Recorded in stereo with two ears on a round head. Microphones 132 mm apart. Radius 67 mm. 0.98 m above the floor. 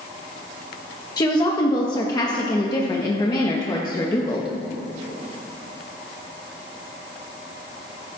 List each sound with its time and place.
1.2 s a woman speaking: 25° left (ahead or behind), 1.1 m